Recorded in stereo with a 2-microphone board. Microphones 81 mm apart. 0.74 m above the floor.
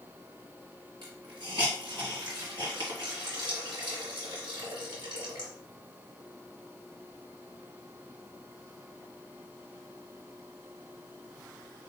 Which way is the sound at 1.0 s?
80° right.